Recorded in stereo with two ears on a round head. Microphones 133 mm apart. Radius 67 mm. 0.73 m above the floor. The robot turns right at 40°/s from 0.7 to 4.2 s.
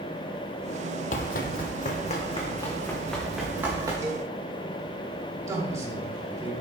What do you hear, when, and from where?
1.1 s running footsteps: 55° left (ahead or behind), 1.3 m; by 3.9 s 25° right (ahead or behind), 5 m
4.0 s a cowbell: 20° right (ahead or behind), 1.8 m; by 4.3 s 15° right (ahead or behind), 1.8 m
5.5 s a man speaking: 25° right (ahead or behind), 4 m